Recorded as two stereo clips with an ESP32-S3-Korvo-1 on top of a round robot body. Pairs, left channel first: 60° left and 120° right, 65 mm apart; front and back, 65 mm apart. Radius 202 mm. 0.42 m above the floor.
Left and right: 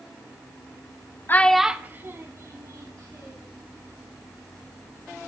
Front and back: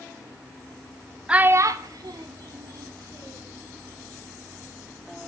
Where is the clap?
I don't hear a clap.